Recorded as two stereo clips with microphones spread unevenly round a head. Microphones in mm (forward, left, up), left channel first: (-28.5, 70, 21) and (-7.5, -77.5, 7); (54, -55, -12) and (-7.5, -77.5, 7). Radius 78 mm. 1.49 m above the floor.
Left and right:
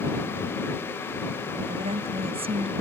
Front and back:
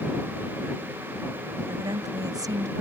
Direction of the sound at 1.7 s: 135° right.